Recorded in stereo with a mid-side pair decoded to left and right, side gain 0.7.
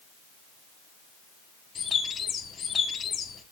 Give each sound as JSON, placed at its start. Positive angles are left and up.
{"t": 1.8, "sound": "a bird", "azimuth_deg": 30, "distance_m": 2.0}